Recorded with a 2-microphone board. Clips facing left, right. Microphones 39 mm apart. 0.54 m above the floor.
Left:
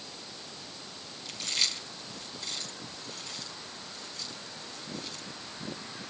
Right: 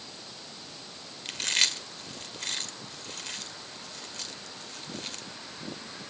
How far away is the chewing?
About 1.7 m.